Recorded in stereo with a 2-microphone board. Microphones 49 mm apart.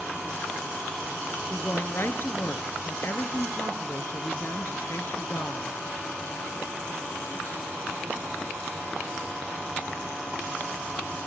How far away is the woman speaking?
About 3 m.